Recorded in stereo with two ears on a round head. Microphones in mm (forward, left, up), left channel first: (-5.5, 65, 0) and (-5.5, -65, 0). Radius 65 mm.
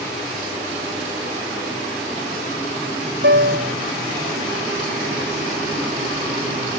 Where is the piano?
75° right (ahead or behind).